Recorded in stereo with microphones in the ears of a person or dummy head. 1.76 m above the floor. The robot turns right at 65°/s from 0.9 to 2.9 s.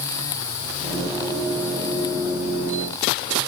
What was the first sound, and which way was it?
Only background noise.